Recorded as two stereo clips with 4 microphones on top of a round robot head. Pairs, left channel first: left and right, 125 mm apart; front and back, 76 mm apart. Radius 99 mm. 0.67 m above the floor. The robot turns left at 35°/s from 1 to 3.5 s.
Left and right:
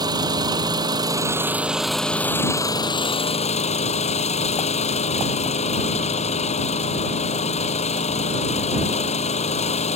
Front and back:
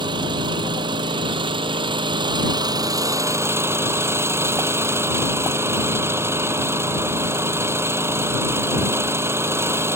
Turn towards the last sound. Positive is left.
turn(degrees=125)